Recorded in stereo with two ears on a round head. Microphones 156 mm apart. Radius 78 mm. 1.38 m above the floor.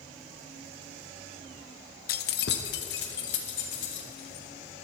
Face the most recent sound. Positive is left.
turn(degrees=70)  # may be behind; listen again after turning